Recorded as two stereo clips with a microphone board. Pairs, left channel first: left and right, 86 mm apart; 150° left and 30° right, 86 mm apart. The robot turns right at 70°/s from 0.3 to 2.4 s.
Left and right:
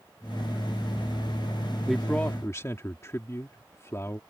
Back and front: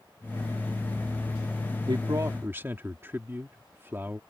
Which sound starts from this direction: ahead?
A man speaking, at 1.9 s.